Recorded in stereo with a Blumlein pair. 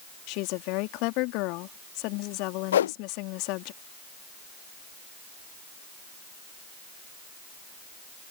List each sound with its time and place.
0.3 s a woman speaking: 40° left
2.7 s a whoosh: 65° left